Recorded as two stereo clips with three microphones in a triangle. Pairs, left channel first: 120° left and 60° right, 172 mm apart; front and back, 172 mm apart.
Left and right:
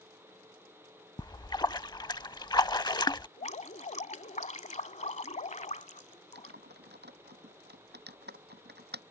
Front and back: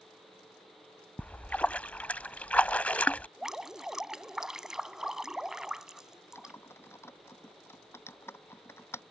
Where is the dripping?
95° left.